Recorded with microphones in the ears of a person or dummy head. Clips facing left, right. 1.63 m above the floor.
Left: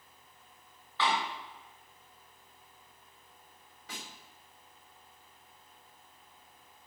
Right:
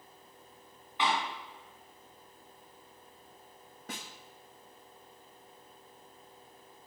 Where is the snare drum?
40° right (ahead or behind), 0.9 m.